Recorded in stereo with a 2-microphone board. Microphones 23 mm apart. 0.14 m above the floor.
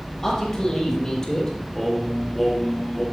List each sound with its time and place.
0.2 s a man speaking: 15° left (ahead or behind), 4 m; by 1.5 s 20° left (ahead or behind), 4.5 m
1.7 s singing: 10° left (ahead or behind), 3 m